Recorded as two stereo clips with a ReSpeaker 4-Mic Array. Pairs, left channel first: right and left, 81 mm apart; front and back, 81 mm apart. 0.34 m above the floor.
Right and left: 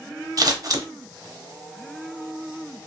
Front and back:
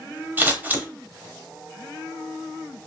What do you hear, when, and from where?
0.4 s scissors: 115° left, 0.8 m